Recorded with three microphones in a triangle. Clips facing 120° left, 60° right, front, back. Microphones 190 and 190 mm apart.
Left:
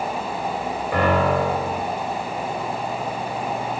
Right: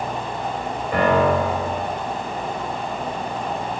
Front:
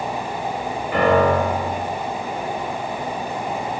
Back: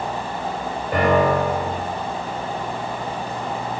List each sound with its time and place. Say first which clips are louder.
0.9 s a piano: right 2 dB, front 1 dB; 140° right, 3 m